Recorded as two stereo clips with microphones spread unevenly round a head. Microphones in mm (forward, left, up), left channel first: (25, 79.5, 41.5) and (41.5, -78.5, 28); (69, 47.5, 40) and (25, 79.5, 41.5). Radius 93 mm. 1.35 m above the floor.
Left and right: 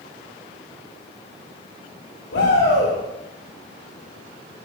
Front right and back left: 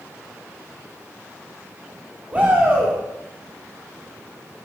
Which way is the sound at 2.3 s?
85° left.